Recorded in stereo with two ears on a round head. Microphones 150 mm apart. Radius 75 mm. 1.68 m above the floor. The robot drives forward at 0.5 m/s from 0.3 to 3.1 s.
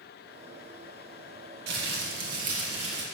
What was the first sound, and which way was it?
Crumpling, 60° right (ahead or behind).